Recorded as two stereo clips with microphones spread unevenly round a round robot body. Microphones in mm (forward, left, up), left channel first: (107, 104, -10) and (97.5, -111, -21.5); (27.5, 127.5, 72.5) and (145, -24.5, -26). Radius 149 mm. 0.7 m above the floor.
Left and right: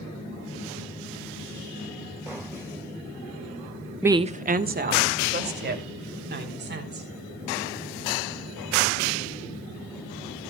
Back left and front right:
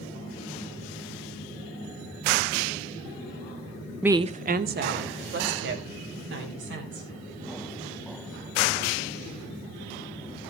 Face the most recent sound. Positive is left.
turn(degrees=-55)